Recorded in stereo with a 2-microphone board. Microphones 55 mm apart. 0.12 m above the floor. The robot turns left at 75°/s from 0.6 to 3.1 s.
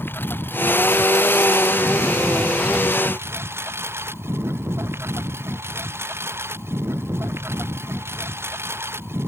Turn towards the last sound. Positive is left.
turn(degrees=-45)